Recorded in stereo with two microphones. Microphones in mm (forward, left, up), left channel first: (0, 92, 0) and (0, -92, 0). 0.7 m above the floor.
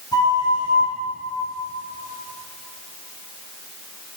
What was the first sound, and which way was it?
A flute, 20° left (ahead or behind).